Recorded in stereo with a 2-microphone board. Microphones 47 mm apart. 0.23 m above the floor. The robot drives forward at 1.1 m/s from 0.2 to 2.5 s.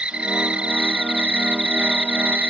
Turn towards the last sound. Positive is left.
turn(degrees=-30)  # may be behind; listen again after turning